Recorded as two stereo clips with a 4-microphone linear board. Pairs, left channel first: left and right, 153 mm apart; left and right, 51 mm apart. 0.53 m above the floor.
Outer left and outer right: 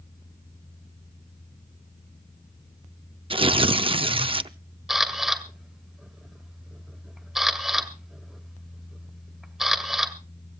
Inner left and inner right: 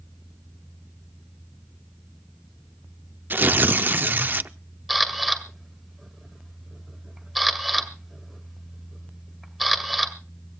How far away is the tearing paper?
About 0.5 m.